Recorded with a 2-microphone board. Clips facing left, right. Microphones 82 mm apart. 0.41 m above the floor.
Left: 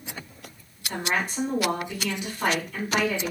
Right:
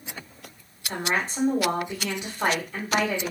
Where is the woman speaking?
30° right (ahead or behind), 1.0 m.